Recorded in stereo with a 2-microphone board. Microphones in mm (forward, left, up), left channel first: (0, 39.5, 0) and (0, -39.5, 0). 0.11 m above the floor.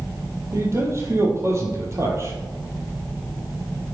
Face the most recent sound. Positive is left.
turn(degrees=-35)  # may be behind; listen again after turning